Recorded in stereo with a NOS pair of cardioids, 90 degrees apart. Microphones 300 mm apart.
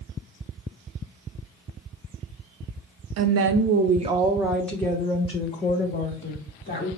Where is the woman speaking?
60° right, 0.8 m; by 6.9 s 30° left, 2.0 m.